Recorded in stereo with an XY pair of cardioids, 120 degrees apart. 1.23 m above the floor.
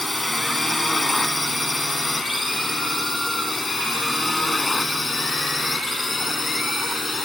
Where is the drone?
10° left; by 7.2 s 20° left.